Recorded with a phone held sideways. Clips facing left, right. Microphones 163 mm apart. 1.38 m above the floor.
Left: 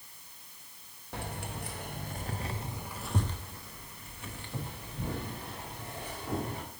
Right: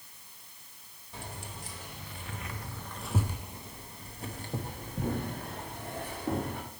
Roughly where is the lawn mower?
No lawn mower in this recording.